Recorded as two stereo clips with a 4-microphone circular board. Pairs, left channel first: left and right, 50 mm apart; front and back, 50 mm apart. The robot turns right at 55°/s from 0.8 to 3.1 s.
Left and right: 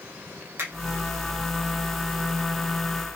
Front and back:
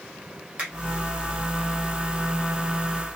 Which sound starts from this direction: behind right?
A finger snap, at 0.6 s.